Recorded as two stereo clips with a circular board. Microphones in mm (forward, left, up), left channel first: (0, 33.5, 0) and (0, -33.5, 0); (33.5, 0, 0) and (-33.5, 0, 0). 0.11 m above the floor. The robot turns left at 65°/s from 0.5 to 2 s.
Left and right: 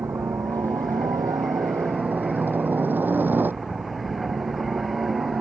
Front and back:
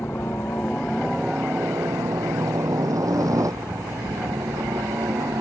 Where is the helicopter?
55° right; by 5.4 s 150° right.